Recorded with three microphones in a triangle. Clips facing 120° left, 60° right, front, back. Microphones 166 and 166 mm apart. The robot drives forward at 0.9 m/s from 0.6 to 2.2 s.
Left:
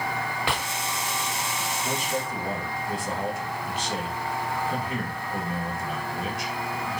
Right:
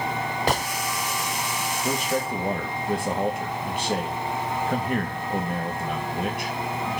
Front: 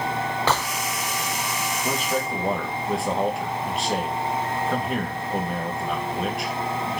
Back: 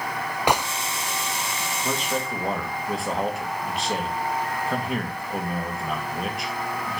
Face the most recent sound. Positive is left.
turn(degrees=-90)